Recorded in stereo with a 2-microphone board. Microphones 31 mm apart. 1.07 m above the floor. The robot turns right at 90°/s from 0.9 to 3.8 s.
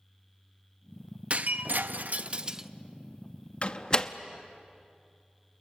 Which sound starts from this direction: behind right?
Breaking glass, at 1.3 s.